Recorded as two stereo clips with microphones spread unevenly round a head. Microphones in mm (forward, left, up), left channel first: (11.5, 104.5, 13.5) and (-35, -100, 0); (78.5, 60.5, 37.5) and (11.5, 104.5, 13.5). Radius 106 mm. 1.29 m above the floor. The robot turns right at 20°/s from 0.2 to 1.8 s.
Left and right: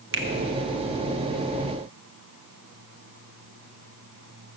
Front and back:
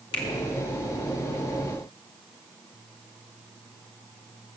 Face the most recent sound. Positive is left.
turn(degrees=-35)